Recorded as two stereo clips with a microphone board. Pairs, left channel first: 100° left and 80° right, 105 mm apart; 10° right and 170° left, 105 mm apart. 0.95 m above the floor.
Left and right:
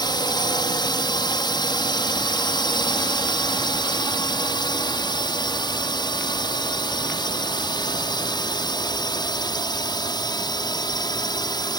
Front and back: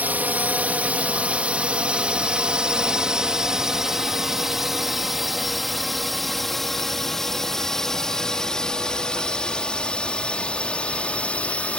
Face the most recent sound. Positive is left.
turn(degrees=65)